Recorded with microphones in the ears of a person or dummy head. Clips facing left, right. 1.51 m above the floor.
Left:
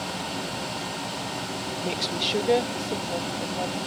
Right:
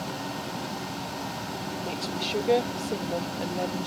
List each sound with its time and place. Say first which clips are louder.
1.8 s a woman speaking: left 4 dB; 30° left (ahead or behind); by 3.9 s 30° right (ahead or behind)